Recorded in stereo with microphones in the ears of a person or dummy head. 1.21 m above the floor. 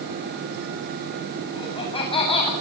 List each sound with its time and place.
1.6 s laughter: 25° left (ahead or behind), 7.5 m